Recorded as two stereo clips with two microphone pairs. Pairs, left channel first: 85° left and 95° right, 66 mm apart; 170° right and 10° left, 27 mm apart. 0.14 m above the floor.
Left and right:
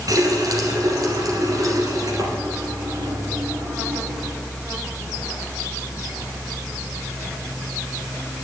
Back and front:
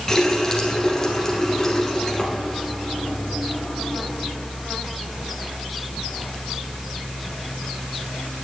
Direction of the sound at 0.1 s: 100° right.